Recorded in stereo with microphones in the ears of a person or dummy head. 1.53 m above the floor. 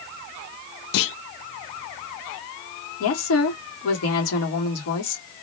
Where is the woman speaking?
85° left, 2.5 m.